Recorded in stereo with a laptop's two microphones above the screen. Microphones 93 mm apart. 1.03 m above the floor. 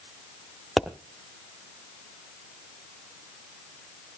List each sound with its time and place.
0.8 s a pop: centre (ahead or behind), 1.0 m